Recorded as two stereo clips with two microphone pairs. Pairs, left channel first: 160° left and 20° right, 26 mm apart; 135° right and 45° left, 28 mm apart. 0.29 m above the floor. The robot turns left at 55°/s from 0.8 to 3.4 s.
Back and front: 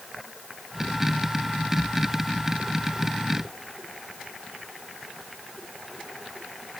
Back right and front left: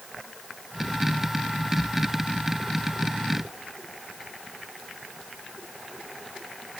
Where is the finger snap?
I don't hear a finger snap.